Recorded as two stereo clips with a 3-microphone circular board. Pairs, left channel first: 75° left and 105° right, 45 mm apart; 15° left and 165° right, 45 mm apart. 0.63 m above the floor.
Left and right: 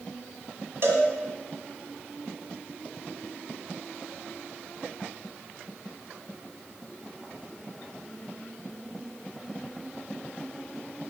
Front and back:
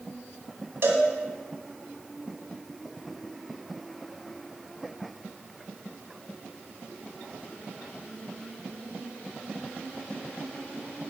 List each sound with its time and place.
0.8 s a cowbell: 135° right, 1.9 m